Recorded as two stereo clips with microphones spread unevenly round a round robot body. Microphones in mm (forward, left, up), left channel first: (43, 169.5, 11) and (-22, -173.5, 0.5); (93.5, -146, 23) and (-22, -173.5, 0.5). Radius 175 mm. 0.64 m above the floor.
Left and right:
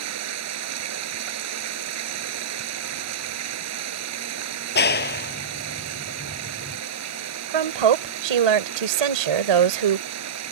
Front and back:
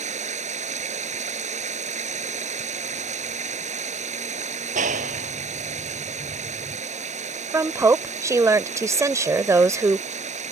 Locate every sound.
0.0 s running water: 150° right
4.8 s a clap: 145° left
7.5 s a woman speaking: 100° right